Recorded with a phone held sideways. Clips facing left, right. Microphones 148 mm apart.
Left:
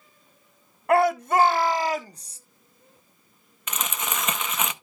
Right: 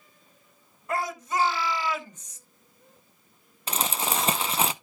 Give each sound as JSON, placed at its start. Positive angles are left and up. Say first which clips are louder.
{"t": 0.9, "sound": "a shout", "louder": "left 10 dB", "side_deg": 65, "distance_m": 1.0}
{"t": 3.7, "sound": "crumpling", "louder": "right 3 dB", "side_deg": -30, "distance_m": 0.8}